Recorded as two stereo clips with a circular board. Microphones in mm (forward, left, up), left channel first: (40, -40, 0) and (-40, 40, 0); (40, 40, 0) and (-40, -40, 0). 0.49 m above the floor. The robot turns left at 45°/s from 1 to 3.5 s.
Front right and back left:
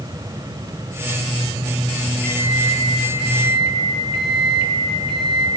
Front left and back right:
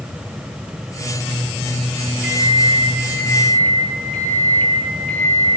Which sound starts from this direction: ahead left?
A microwave, at 2.2 s.